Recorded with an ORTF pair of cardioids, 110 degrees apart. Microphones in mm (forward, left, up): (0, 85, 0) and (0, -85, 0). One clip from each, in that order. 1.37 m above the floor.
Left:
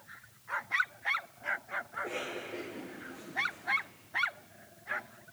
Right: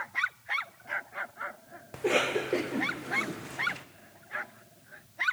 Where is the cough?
70° right, 0.9 m.